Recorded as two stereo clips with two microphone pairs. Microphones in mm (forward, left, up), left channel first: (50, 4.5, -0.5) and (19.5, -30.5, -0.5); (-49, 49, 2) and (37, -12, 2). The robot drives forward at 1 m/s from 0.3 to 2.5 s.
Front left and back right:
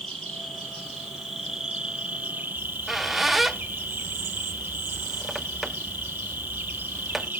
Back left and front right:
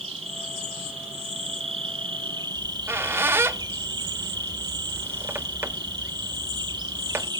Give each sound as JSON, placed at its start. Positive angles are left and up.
{"t": 0.0, "sound": "an insect", "azimuth_deg": -25, "distance_m": 2.5}
{"t": 2.6, "sound": "a squeak", "azimuth_deg": -45, "distance_m": 0.5}